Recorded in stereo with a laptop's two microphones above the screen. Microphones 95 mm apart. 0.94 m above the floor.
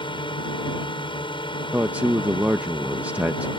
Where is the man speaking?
15° right (ahead or behind).